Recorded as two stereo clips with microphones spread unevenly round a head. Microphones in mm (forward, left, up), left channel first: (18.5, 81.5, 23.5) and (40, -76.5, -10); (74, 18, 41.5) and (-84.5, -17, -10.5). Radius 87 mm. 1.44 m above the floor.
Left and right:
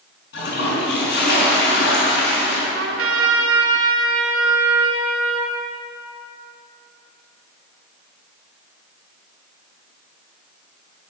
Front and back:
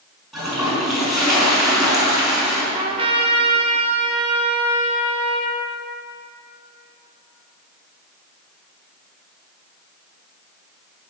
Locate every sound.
0.3 s a toilet flushing: 100° left, 5 m
2.7 s a trumpet: 105° right, 2 m